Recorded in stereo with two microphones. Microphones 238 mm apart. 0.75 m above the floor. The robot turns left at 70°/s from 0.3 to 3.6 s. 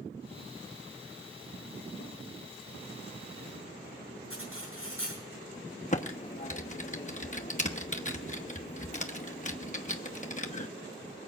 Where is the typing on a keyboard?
30° left (ahead or behind), 1.0 m.